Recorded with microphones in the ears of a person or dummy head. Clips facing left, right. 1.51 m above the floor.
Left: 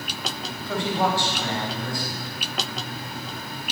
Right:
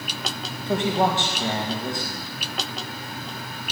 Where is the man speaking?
20° right (ahead or behind), 2 m.